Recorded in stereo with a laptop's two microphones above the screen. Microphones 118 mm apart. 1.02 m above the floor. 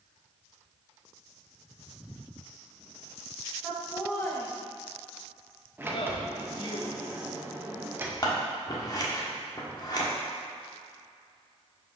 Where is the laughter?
10° left (ahead or behind), 1.2 m; by 6.8 s 45° left (ahead or behind), 1.5 m.